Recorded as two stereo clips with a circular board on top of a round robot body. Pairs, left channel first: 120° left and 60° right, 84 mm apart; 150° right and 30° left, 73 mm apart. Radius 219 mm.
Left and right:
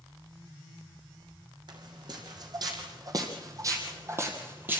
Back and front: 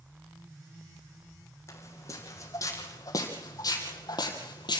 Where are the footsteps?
100° right, 3 m; by 4.8 s 130° right, 1.6 m.